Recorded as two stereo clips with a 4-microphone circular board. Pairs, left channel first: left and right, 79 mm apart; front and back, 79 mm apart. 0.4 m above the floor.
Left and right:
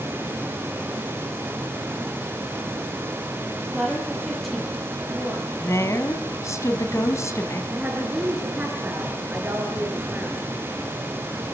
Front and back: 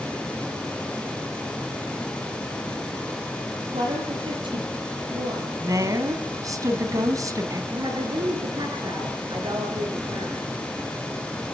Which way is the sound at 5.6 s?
140° left.